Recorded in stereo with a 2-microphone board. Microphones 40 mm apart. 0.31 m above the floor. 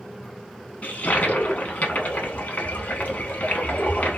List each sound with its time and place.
0.8 s a toilet flushing: 40° left (ahead or behind), 0.8 m